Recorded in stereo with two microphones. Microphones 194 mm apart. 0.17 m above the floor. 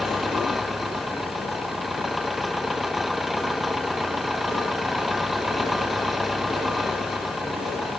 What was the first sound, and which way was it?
An engine running, centre (ahead or behind).